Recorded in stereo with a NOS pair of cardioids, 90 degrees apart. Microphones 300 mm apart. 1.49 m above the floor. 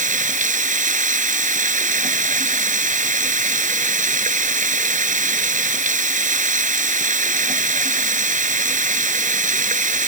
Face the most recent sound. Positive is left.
turn(degrees=-25)